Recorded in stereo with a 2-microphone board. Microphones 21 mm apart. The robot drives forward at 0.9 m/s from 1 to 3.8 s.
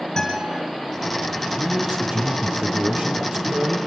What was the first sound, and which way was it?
A guitar, 15° left (ahead or behind).